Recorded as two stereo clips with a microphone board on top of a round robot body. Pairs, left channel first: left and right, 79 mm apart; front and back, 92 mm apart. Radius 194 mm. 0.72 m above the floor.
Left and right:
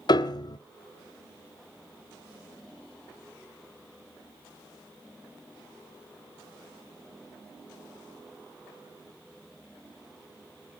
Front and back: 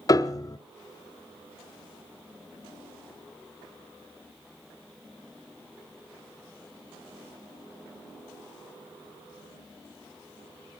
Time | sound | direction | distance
0.1 | a piano | 55° left | 0.9 m